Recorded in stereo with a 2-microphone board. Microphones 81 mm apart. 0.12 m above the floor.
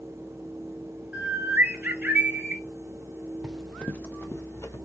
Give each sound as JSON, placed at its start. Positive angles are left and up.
{"t": 1.1, "sound": "a bird", "side_deg": -15, "distance_m": 1.3}
{"t": 3.4, "sound": "running footsteps", "side_deg": -10, "distance_m": 0.9}